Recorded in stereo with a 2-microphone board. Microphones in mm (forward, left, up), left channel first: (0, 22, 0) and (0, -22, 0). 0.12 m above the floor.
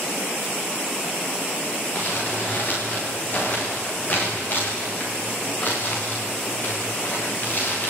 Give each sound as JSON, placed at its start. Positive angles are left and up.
{"t": 1.9, "sound": "crumpling", "side_deg": 45, "distance_m": 8.0}